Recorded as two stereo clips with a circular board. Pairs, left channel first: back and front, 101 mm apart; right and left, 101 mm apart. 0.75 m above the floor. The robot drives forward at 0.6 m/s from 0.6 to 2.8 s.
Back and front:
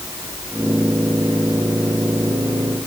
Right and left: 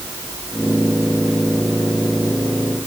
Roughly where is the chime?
No chime in this recording.